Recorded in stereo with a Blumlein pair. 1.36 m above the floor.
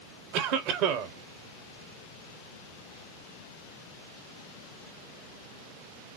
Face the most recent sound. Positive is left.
turn(degrees=-40)